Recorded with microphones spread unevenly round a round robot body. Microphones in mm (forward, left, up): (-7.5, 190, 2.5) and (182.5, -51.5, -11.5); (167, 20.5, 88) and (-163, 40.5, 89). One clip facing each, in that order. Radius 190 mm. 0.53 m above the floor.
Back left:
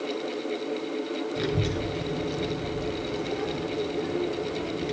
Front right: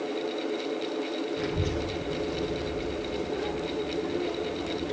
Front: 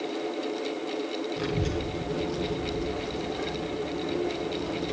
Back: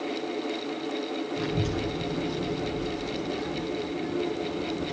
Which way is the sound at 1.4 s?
90° left.